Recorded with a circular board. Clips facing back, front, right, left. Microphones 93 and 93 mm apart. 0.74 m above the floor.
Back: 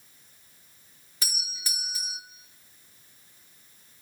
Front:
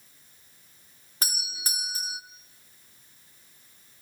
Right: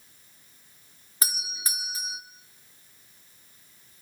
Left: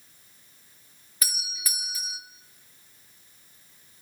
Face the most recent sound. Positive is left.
turn(degrees=-35)